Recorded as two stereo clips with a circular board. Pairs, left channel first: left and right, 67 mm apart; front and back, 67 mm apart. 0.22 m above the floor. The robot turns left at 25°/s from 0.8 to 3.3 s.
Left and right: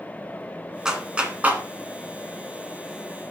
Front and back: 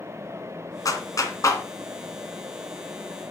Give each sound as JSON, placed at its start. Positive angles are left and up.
{"t": 0.8, "sound": "a clap", "azimuth_deg": -10, "distance_m": 1.9}